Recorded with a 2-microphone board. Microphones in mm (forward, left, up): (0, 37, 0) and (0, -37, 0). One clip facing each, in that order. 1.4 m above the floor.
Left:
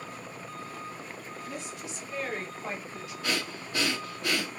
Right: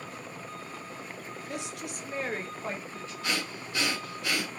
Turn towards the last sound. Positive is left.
turn(degrees=40)  # may be behind; listen again after turning